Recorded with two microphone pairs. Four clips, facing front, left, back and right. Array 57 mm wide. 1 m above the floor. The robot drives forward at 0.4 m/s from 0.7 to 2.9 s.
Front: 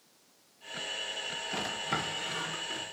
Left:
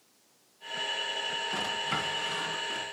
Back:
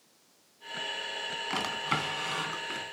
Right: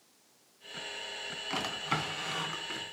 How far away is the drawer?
About 2.5 m.